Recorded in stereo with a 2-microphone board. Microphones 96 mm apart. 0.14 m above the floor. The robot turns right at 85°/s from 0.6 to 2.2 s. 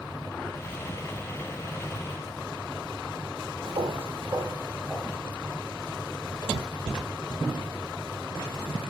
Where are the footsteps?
70° right (ahead or behind), 1.1 m; by 5.2 s 10° left (ahead or behind), 0.9 m.